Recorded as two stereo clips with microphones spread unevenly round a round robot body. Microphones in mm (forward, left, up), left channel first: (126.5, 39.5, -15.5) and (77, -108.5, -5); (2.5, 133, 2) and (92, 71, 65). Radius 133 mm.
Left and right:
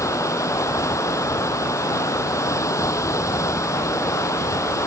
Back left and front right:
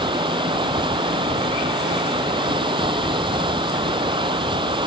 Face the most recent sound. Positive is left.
turn(degrees=0)